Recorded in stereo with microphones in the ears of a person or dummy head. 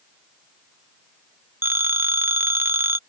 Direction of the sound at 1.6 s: 10° right (ahead or behind).